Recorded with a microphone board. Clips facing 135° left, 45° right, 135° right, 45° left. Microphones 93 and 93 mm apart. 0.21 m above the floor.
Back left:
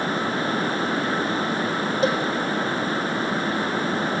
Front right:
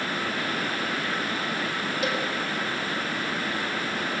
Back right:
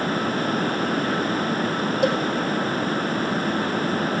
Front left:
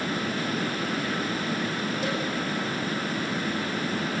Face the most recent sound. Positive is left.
turn(degrees=-165)